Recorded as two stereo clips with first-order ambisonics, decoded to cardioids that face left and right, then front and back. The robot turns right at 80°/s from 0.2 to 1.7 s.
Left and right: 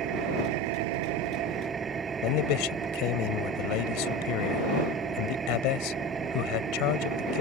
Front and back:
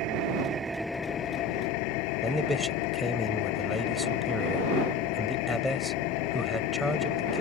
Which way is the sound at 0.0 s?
140° right.